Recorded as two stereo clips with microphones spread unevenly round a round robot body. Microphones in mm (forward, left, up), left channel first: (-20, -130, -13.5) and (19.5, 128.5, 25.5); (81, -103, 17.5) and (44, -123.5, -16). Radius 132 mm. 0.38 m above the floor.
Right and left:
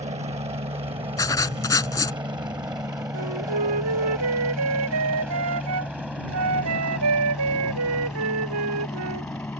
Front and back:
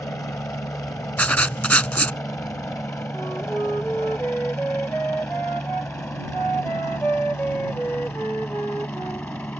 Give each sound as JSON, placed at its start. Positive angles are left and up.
{"t": 0.0, "sound": "a helicopter", "azimuth_deg": 15}
{"t": 1.2, "sound": "writing", "azimuth_deg": -20}
{"t": 3.1, "sound": "a flute", "azimuth_deg": 110}